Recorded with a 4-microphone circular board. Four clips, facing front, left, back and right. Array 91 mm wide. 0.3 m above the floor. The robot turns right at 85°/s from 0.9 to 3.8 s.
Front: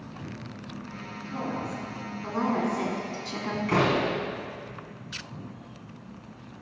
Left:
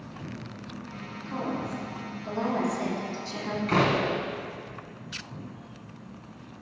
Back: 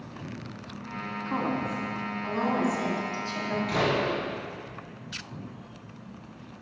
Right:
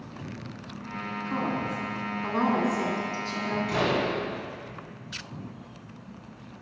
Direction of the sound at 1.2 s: 175° right.